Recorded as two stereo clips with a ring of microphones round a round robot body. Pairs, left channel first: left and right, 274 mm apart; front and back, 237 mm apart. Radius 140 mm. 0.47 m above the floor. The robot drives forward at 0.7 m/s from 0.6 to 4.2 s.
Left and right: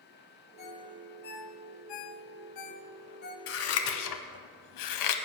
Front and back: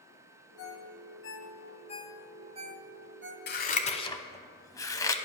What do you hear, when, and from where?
0.6 s a ringtone: 25° left, 1.3 m; by 3.4 s 145° left, 0.9 m
3.5 s scissors: 45° left, 1.0 m; by 5.1 s 75° left, 0.8 m